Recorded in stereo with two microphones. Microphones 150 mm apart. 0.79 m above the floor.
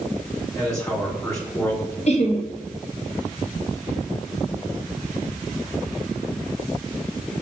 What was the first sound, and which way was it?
A man speaking, 20° left (ahead or behind).